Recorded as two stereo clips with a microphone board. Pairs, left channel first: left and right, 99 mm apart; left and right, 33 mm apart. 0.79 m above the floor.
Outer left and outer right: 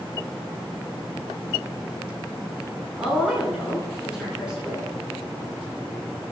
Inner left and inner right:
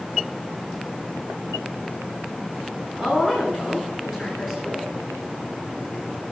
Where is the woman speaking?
5° right (ahead or behind), 9.5 m.